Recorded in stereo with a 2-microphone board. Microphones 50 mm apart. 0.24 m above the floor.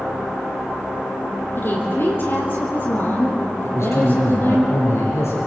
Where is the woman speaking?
45° left (ahead or behind), 6 m.